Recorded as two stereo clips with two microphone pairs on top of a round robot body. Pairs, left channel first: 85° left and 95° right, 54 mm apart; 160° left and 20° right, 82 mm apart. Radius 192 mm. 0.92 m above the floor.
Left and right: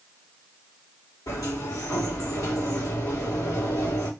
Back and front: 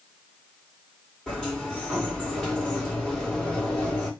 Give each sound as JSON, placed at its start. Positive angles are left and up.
{"t": 1.3, "sound": "a sliding door", "azimuth_deg": 75, "distance_m": 3.5}